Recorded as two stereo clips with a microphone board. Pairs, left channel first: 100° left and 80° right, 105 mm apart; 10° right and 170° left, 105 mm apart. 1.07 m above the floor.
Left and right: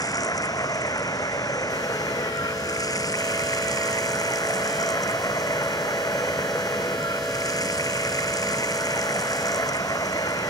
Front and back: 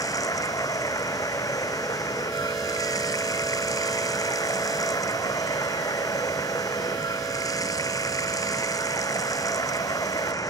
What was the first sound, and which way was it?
Running water, 45° left.